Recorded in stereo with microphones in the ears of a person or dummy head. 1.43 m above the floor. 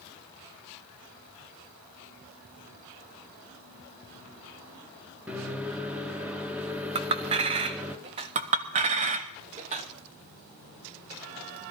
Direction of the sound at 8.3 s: 30° right (ahead or behind).